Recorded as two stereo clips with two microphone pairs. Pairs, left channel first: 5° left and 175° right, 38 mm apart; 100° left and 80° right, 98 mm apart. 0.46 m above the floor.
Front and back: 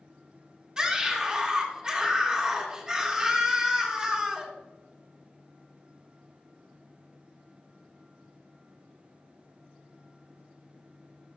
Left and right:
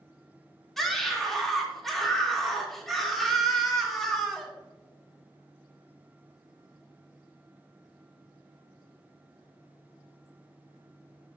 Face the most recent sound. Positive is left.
turn(degrees=-175)